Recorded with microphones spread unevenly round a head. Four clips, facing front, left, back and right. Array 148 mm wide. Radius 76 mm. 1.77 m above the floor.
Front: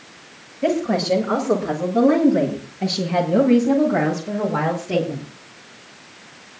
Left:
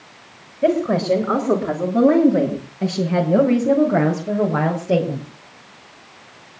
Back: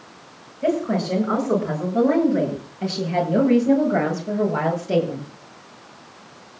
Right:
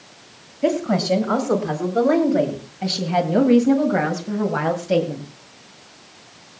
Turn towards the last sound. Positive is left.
turn(degrees=105)